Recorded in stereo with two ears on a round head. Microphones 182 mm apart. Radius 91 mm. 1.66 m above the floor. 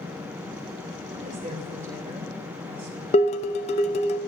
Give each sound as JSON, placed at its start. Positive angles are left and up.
{"t": 1.1, "sound": "a woman speaking", "side_deg": -40, "distance_m": 4.0}
{"t": 3.1, "sound": "dishes clattering", "side_deg": 30, "distance_m": 1.0}